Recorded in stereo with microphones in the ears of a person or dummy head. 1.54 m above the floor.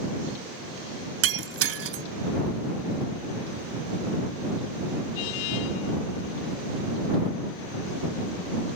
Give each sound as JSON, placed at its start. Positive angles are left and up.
{"t": 1.2, "sound": "breaking glass", "side_deg": -80}